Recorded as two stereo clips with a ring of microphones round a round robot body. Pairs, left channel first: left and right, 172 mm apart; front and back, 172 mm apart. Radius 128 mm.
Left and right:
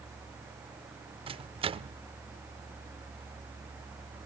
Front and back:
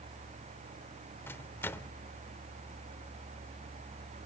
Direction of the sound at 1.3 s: 70° right.